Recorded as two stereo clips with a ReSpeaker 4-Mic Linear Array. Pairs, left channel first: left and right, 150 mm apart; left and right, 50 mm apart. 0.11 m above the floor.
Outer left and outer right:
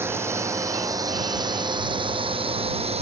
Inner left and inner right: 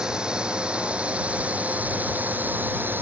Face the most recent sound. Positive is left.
turn(degrees=-45)  # may be behind; listen again after turning